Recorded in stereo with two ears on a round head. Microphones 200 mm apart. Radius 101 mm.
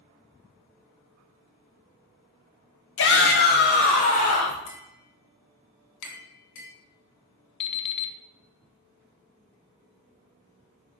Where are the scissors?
I don't hear scissors.